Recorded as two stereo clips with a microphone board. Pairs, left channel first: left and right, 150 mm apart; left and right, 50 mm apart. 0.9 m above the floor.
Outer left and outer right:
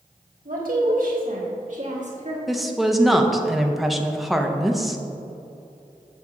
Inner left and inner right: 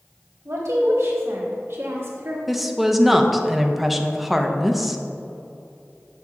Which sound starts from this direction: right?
A woman speaking, at 0.5 s.